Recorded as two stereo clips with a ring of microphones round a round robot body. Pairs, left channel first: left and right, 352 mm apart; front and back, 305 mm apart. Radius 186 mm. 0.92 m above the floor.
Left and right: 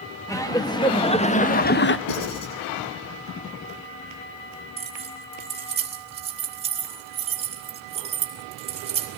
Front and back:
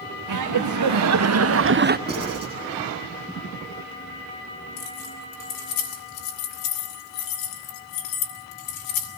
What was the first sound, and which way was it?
Laughter, 170° left.